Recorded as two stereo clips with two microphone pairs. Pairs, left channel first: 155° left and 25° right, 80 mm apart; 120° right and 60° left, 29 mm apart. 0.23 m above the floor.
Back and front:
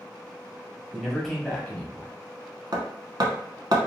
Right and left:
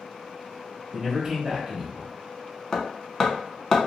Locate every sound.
0.9 s a man speaking: 50° left, 1.0 m; by 2.1 s 100° left, 1.2 m
2.7 s hammering: 45° right, 0.8 m